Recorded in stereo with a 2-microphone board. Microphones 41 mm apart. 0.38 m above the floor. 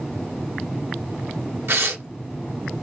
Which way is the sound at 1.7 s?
85° right.